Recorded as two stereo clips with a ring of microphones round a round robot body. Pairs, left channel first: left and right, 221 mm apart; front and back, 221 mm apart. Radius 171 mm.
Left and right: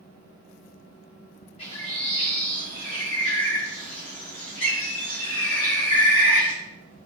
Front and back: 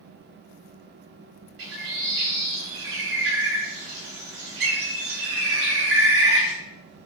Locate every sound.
1.6 s a bird: 160° left, 3.5 m